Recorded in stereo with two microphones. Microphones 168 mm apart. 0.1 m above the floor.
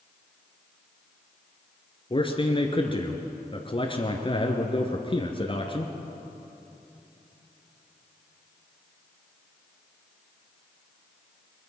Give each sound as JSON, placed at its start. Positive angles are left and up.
{"t": 2.1, "sound": "a man speaking", "side_deg": 35, "distance_m": 1.7}